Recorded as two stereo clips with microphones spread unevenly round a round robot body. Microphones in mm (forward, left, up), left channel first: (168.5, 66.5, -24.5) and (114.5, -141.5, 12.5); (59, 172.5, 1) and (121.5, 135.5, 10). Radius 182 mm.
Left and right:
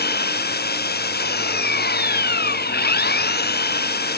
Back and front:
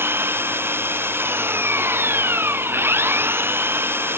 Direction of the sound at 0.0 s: 30° left.